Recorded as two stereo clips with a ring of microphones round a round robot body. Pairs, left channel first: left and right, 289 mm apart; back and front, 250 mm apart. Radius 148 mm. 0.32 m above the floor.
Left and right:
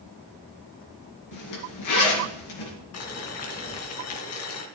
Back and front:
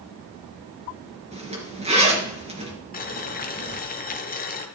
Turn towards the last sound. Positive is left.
turn(degrees=125)